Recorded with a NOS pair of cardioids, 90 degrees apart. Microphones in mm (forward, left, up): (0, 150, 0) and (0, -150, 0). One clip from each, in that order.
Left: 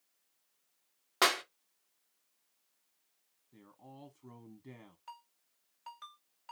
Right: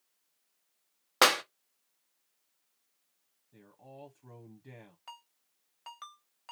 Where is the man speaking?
Straight ahead, 1.0 m.